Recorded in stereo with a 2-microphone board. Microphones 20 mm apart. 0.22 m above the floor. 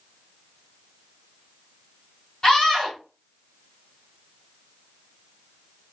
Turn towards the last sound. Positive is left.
turn(degrees=25)  # may be behind; listen again after turning